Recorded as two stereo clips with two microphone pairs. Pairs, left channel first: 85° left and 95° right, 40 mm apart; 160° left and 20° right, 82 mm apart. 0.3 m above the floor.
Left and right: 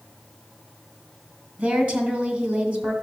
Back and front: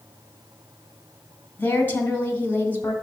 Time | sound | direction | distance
1.6 | a woman speaking | 140° right | 2.5 m